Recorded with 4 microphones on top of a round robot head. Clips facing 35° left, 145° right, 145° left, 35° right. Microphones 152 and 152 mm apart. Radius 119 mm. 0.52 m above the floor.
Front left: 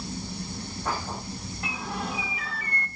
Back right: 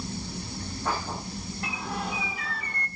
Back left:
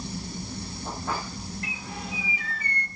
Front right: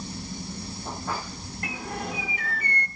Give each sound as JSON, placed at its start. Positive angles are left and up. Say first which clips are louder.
{"t": 1.6, "sound": "a bird", "louder": "even, front right 4 dB", "azimuth_deg": -55, "distance_m": 1.4}